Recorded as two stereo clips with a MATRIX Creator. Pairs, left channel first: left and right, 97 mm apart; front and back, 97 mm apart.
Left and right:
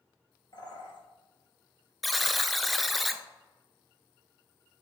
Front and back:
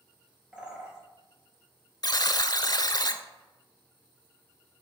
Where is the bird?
105° left, 2.5 m.